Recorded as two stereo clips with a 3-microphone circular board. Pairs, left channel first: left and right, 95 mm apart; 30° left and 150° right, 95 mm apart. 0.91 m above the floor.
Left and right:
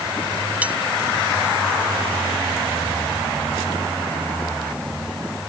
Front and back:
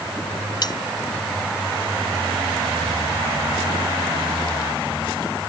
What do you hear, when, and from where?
0.6 s cutlery clinking: 15° right